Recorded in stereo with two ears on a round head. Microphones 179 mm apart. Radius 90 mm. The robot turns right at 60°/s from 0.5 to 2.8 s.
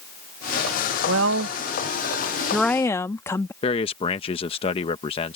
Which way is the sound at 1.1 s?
90° right.